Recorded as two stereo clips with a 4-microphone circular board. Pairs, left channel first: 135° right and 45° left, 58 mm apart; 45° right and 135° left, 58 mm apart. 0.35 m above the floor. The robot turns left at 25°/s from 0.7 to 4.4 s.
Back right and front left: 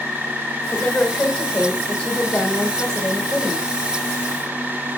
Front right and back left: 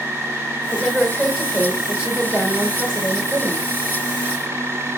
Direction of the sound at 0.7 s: 135° right.